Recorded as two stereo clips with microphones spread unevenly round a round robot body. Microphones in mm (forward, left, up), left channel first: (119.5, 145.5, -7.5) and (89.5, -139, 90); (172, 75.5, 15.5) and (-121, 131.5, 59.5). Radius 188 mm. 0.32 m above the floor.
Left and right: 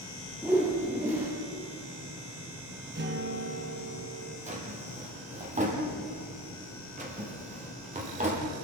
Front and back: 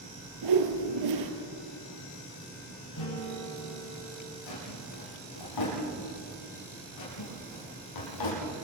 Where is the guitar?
40° right, 7 m.